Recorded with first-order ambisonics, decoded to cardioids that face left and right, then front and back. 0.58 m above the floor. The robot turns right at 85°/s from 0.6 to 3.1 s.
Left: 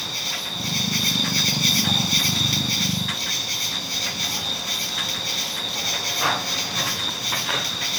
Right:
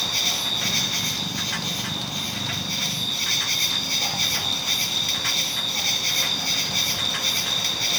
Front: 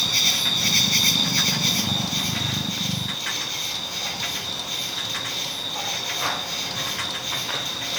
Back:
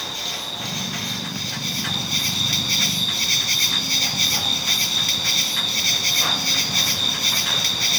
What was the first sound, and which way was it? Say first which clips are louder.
An insect: right 4 dB, front 7 dB; 15° right.